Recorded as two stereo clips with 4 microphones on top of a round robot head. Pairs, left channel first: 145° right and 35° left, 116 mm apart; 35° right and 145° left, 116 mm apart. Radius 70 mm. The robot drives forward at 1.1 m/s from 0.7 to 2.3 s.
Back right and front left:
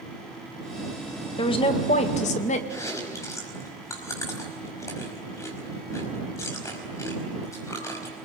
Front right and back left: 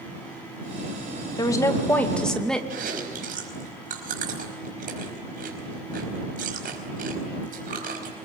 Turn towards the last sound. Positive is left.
turn(degrees=150)